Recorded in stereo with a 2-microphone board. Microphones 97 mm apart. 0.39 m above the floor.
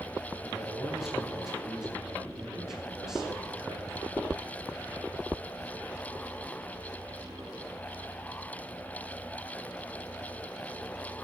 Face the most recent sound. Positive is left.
turn(degrees=-5)  # may be behind; listen again after turning